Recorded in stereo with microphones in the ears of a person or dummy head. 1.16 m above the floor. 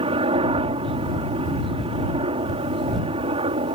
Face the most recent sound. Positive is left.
turn(degrees=-25)  # may be behind; listen again after turning